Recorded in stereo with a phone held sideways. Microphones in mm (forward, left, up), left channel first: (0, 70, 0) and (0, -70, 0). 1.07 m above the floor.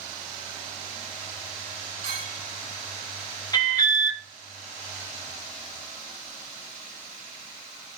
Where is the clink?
80° right, 4.5 m.